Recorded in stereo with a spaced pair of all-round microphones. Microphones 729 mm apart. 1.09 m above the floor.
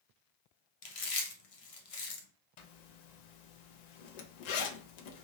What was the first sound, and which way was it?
Chewing, 50° left (ahead or behind).